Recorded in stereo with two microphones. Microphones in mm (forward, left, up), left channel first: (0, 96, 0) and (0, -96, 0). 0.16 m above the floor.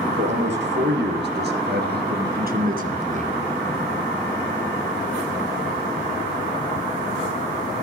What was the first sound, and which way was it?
A man speaking, 70° right (ahead or behind).